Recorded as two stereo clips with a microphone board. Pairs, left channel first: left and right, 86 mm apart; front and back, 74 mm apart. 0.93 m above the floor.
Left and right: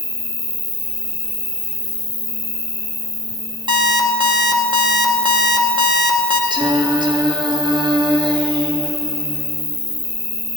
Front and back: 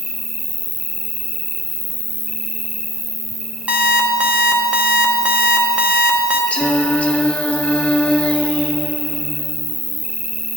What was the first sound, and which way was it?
An insect, 65° left.